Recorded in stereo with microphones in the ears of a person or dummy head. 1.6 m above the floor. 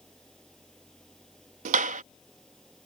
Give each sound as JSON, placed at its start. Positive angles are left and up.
{"t": 0.0, "sound": "an engine running", "side_deg": 5}
{"t": 1.6, "sound": "a clap", "side_deg": -40}